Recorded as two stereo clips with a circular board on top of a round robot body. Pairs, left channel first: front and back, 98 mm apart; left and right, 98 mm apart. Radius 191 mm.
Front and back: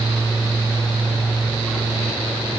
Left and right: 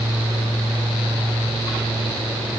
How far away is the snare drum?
No snare drum in this recording.